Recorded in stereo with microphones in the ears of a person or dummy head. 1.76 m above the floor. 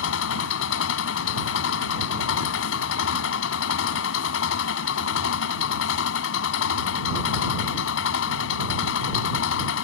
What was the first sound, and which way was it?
An engine running, 70° left (ahead or behind).